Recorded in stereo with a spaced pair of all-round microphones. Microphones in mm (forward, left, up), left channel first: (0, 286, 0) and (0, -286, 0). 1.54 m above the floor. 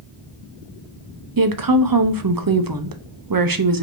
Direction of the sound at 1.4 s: 40° right (ahead or behind).